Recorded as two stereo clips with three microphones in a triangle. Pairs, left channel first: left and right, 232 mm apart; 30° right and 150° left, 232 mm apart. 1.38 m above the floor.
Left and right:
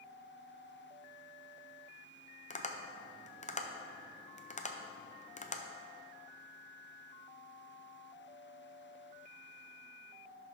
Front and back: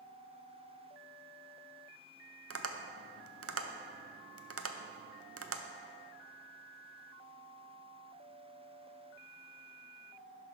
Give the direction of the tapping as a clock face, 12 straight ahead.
7 o'clock.